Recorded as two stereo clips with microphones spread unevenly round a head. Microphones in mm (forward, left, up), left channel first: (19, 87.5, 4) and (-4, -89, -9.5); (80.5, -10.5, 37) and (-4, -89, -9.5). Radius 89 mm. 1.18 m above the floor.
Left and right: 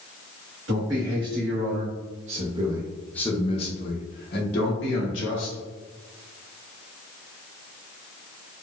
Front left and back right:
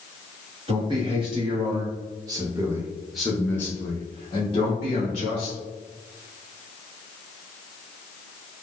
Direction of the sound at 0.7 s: 110° right.